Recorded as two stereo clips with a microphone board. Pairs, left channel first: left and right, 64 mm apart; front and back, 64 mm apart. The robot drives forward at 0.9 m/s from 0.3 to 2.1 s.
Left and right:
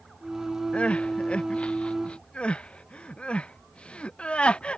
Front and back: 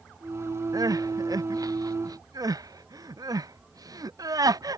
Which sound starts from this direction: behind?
Crying, at 0.7 s.